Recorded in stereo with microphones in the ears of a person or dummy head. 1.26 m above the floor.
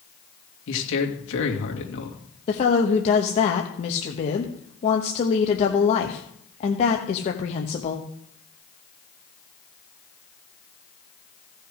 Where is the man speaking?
70° left (ahead or behind), 2.5 m.